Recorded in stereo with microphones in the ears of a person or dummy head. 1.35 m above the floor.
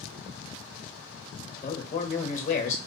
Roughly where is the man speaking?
Left.